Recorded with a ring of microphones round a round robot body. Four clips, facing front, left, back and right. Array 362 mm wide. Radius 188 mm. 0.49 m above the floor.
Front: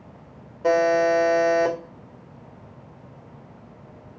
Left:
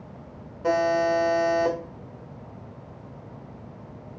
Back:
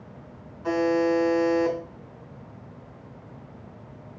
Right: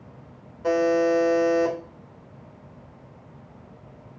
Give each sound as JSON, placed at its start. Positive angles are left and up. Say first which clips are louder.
{"t": 0.6, "sound": "a buzzer", "louder": "right 1 dB, front 4 dB", "azimuth_deg": -5, "distance_m": 2.0}